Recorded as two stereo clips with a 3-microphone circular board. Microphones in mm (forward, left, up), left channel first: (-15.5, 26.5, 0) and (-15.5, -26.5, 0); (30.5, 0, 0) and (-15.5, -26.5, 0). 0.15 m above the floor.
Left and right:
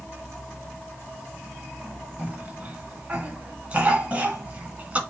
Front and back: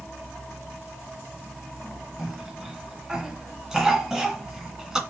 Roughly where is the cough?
Right.